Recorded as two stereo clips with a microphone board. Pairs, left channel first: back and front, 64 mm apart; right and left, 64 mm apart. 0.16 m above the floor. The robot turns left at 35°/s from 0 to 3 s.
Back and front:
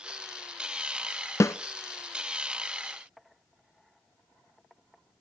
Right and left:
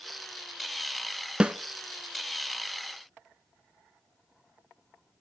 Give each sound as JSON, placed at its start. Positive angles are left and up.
{"t": 1.4, "sound": "a snare drum", "azimuth_deg": 160, "distance_m": 0.5}